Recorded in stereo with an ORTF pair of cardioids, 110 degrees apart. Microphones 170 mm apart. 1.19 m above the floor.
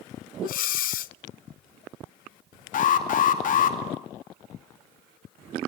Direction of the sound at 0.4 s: 60° left.